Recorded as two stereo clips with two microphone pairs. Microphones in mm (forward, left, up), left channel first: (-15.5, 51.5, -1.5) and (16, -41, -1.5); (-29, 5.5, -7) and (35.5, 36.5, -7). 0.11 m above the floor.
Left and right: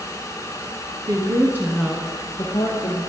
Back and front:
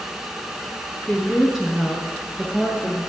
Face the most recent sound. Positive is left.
turn(degrees=85)